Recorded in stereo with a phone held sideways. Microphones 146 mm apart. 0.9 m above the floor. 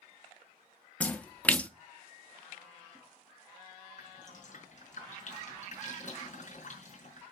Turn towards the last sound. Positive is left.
turn(degrees=60)  # may be behind; listen again after turning